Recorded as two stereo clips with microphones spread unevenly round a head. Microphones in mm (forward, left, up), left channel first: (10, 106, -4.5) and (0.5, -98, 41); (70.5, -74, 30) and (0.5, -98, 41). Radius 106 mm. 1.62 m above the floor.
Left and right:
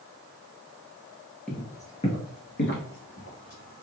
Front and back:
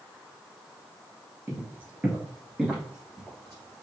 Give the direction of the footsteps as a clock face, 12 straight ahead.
6 o'clock.